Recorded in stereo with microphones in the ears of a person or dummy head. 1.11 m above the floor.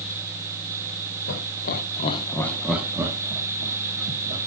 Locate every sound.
1.3 s laughter: 60° left (ahead or behind), 1.3 m; by 4.4 s 30° right (ahead or behind), 2.5 m